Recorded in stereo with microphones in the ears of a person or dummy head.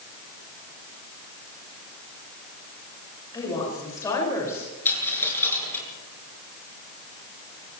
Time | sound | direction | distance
3.3 | a woman speaking | 20° left (ahead or behind) | 7.5 m
4.8 | a dropped coin | 15° left (ahead or behind) | 6.5 m